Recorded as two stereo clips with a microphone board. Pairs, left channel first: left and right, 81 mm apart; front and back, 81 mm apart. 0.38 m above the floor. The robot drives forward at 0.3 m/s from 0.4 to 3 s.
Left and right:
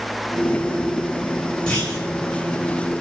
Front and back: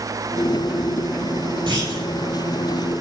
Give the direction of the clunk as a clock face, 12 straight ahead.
6 o'clock.